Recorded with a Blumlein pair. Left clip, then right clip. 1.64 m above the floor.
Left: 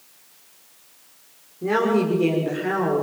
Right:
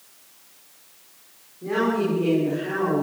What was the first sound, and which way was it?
A woman speaking, 25° left.